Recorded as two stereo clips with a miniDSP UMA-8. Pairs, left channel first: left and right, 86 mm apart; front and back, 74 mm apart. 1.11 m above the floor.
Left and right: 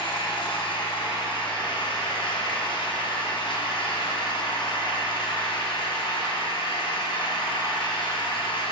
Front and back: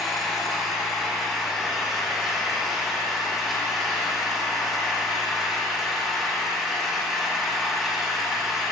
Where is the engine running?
90° left, 1.1 m.